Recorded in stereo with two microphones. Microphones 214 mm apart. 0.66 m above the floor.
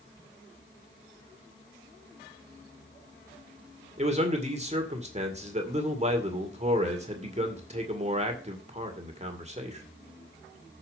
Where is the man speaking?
30° right (ahead or behind), 2 m.